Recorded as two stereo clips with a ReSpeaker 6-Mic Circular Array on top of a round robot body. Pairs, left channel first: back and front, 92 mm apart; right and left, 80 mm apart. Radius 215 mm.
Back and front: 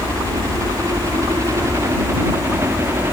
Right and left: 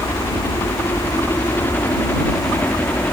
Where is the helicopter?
35° right.